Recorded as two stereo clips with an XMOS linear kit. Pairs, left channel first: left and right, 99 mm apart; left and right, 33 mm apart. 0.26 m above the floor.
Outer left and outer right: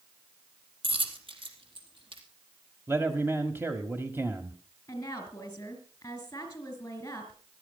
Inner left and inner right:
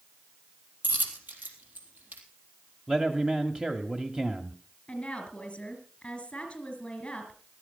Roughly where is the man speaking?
Right.